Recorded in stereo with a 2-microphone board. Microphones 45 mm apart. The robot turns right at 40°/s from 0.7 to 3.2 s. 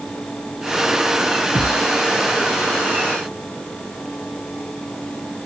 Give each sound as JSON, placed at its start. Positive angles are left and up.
{"t": 1.6, "sound": "a thud", "side_deg": 20, "distance_m": 6.0}